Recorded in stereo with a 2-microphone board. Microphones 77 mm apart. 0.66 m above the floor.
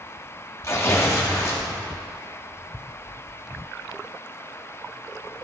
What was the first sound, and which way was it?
Tearing paper, 40° left (ahead or behind).